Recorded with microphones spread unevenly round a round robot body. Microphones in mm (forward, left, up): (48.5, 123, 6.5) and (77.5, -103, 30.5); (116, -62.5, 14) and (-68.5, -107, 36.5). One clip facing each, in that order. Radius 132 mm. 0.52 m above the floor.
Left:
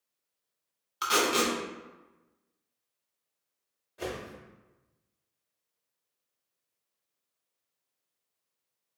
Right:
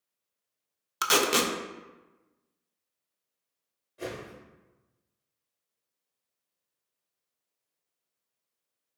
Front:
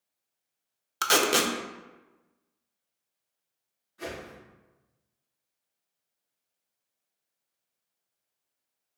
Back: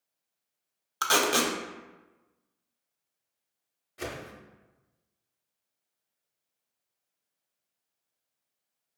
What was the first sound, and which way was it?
Tape being pulled, 55° right.